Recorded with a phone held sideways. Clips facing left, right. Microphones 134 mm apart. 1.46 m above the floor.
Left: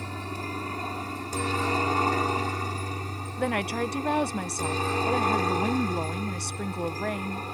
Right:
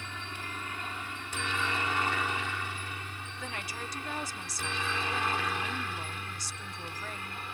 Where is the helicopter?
40° left (ahead or behind).